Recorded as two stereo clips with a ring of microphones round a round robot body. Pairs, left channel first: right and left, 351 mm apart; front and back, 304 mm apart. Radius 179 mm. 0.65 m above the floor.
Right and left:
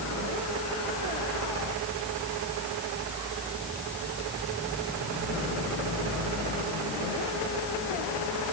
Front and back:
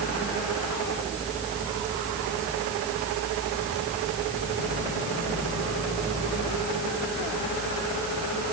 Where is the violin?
No violin in this recording.